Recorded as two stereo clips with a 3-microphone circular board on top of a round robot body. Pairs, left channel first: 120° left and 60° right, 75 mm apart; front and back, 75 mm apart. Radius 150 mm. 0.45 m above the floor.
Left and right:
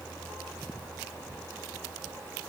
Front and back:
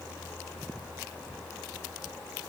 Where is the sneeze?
I don't hear a sneeze.